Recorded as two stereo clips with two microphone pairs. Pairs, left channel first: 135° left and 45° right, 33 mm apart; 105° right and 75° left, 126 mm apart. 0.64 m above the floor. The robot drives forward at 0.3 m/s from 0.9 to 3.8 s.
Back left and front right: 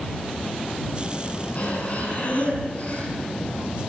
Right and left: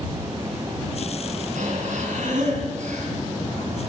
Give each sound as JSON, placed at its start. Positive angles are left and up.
{"t": 1.6, "sound": "breathing", "azimuth_deg": 85, "distance_m": 4.5}